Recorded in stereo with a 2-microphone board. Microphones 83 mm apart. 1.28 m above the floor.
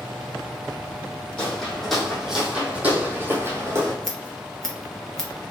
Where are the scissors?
5° left (ahead or behind), 1.2 m.